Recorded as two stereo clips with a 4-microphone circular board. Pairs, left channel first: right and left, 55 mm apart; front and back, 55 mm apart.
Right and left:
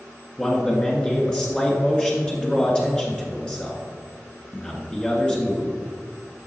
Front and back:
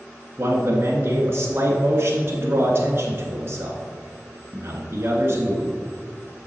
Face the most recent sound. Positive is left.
turn(degrees=-155)